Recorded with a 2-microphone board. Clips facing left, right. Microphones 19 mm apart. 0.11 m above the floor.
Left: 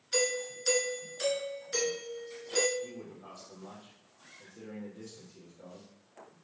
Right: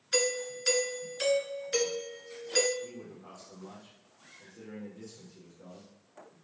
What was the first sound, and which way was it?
A doorbell, 20° right (ahead or behind).